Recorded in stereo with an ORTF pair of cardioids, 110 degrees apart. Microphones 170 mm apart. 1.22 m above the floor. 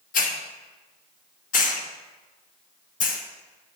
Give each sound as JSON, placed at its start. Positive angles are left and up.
{"t": 0.1, "sound": "a hiss", "azimuth_deg": 55, "distance_m": 1.5}